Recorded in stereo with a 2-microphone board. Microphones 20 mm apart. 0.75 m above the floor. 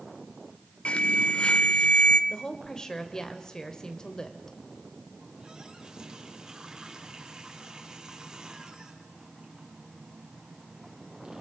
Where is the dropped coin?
No dropped coin in this recording.